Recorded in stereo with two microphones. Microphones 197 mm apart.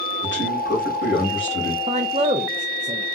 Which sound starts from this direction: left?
A man speaking, at 0.2 s.